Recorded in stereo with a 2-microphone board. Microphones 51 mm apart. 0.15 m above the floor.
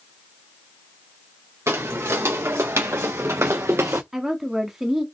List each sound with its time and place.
1.7 s footsteps: 65° right (ahead or behind), 2 m; by 4.0 s 60° right (ahead or behind), 0.8 m
4.1 s a woman speaking: 10° right (ahead or behind), 1.0 m